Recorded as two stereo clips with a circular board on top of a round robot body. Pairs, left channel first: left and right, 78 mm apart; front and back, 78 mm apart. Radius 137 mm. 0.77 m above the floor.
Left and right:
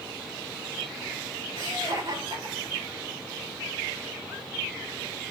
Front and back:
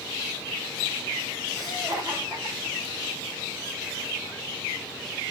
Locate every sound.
1.6 s laughter: 90° right, 4 m; by 3.1 s 115° right, 3 m